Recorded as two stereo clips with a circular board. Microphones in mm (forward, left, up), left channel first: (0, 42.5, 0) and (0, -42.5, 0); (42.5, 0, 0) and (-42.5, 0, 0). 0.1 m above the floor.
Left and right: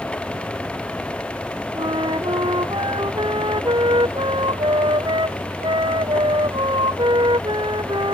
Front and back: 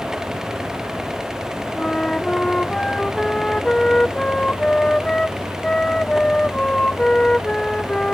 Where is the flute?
80° right.